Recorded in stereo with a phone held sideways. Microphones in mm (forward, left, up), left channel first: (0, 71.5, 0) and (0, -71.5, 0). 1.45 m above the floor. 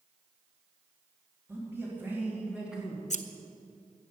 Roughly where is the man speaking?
Centre.